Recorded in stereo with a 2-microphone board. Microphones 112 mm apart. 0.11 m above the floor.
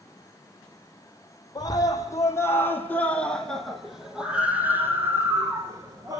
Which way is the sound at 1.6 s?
35° left (ahead or behind).